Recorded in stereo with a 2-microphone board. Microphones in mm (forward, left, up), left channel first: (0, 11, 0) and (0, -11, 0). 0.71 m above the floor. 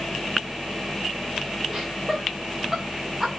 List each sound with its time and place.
1.7 s laughter: centre (ahead or behind), 1.2 m